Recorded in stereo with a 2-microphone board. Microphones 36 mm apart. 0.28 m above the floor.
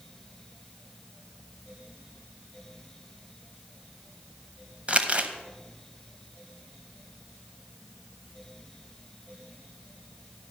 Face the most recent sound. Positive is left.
turn(degrees=-35)  # may be behind; listen again after turning